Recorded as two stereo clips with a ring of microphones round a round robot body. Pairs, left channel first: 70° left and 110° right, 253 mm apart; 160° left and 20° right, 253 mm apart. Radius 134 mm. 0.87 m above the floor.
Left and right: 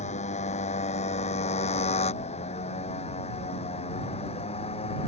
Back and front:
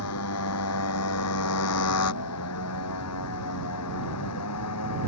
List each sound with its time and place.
0.0 s a motorcycle: 130° left; by 5.1 s 135° left